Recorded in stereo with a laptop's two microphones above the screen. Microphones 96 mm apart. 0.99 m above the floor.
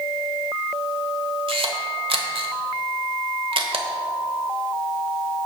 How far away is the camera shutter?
About 1.2 m.